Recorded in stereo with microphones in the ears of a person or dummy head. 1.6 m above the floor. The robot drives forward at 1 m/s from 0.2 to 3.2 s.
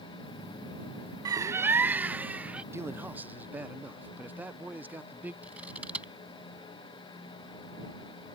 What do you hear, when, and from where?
1.2 s a bird: 25° right (ahead or behind); by 2.6 s 5° right (ahead or behind)
2.7 s a man speaking: 15° right (ahead or behind); by 5.3 s 10° right (ahead or behind)
5.4 s scissors: 10° right (ahead or behind)